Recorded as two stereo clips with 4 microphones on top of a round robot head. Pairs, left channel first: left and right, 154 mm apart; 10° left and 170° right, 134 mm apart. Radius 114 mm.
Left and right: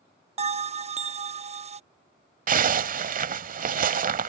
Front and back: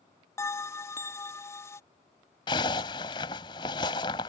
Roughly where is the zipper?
Ahead right.